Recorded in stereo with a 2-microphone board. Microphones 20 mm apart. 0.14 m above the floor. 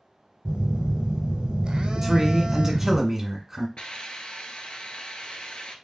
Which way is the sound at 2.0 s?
20° right (ahead or behind).